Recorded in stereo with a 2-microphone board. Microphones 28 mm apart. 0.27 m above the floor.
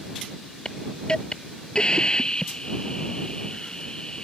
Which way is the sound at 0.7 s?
30° left (ahead or behind).